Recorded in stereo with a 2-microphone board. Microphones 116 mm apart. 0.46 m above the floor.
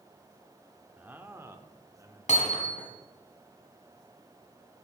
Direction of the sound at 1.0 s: 15° right (ahead or behind).